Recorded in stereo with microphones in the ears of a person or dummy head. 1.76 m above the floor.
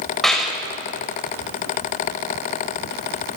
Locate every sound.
0.2 s a clap: centre (ahead or behind), 6.5 m